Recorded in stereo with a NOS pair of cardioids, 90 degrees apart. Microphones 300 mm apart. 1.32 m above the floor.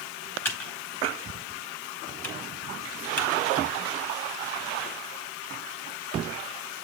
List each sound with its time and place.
0.5 s typing on a keyboard: 5° left, 4.5 m